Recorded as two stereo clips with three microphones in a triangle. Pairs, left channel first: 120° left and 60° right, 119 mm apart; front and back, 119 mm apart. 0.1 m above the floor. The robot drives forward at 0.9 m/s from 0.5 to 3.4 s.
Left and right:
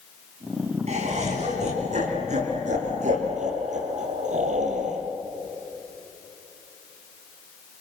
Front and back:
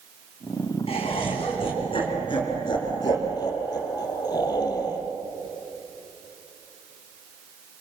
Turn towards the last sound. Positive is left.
turn(degrees=-60)